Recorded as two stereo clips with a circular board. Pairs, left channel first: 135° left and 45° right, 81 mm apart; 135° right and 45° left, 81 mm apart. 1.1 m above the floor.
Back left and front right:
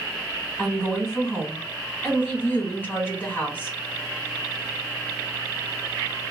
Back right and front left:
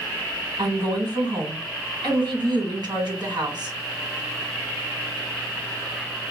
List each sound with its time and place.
0.6 s a woman speaking: 65° left, 1.5 m